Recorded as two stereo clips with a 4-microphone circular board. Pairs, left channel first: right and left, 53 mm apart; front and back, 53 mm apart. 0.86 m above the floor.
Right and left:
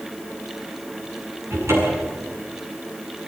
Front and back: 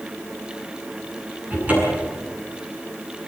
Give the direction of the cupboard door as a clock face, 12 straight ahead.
8 o'clock.